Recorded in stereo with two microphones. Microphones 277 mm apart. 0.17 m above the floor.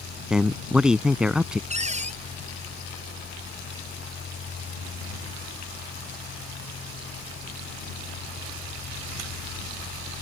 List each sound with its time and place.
0.3 s a man speaking: 5° right (ahead or behind)
1.7 s a cupboard door: 25° right (ahead or behind)